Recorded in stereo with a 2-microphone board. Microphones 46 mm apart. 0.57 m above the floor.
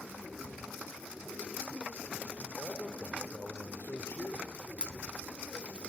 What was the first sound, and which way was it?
A man speaking, 60° left (ahead or behind).